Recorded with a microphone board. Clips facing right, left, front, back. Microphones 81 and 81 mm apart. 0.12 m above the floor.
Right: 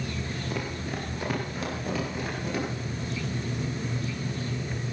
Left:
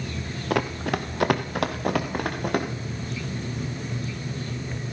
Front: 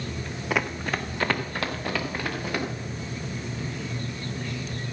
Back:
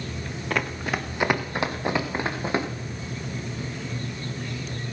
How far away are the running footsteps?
About 1.2 m.